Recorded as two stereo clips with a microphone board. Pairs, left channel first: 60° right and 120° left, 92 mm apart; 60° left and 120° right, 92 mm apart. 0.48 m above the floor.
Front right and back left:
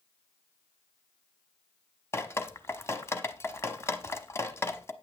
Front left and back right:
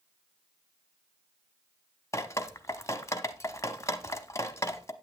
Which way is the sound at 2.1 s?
5° left.